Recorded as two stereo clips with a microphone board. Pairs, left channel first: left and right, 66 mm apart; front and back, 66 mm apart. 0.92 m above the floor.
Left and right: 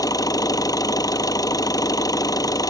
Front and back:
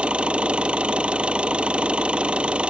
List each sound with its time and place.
0.0 s an engine running: 105° left